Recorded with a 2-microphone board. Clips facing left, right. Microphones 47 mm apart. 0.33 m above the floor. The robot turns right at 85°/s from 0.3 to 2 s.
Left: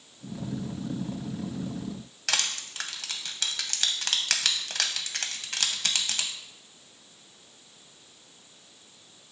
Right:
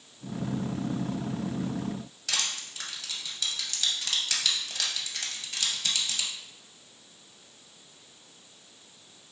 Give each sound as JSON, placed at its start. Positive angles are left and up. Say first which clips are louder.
{"t": 2.3, "sound": "crushing", "louder": "left 3 dB", "side_deg": 70, "distance_m": 0.6}